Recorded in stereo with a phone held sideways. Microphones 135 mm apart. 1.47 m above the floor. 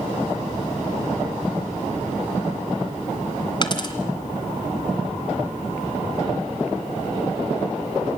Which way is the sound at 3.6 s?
35° left (ahead or behind).